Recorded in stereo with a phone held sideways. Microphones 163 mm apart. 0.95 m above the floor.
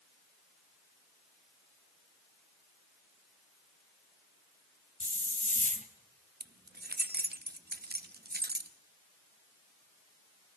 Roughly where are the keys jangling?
Right.